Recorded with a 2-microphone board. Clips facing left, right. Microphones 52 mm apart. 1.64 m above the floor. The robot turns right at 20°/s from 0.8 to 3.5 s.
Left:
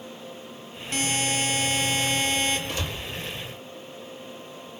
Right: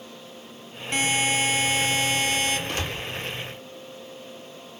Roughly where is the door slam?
Right.